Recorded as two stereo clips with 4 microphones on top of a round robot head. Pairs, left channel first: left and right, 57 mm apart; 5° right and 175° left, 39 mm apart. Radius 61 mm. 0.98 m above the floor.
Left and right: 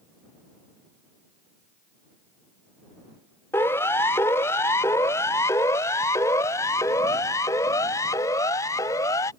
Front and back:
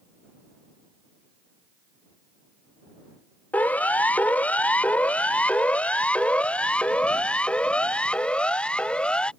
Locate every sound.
3.5 s a siren: 40° left; by 9.3 s 55° left